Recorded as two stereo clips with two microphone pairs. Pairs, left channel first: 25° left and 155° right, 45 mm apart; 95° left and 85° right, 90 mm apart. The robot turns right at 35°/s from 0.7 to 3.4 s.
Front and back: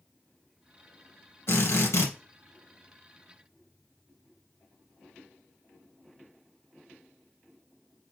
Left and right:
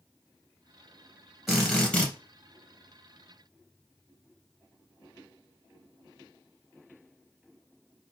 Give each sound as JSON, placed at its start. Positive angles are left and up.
{"t": 1.5, "sound": "a drill", "azimuth_deg": 5, "distance_m": 2.5}